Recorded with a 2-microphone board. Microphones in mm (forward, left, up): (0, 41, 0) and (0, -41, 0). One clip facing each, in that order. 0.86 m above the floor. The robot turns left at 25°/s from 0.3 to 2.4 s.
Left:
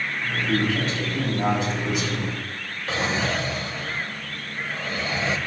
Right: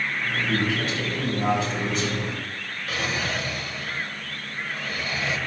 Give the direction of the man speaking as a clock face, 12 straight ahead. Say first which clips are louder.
Left 3 dB; 10 o'clock.